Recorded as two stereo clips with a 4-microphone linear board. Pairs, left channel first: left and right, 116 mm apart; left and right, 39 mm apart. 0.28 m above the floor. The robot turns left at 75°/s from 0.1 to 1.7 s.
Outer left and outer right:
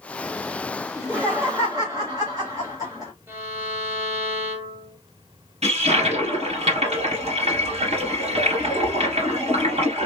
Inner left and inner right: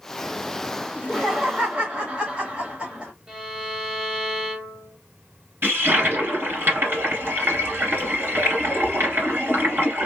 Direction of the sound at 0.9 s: 10° right (ahead or behind).